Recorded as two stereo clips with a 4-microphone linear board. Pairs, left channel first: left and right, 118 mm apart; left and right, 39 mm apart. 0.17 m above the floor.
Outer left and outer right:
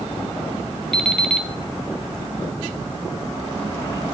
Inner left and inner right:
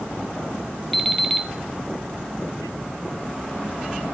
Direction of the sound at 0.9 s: 5° left (ahead or behind).